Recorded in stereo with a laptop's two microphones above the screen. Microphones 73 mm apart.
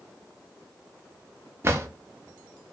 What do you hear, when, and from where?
1.6 s a drawer: 35° right (ahead or behind), 0.6 m